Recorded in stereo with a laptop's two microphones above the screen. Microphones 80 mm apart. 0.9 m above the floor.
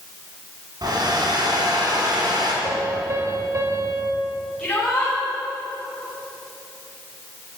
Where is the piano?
45° right (ahead or behind), 4 m.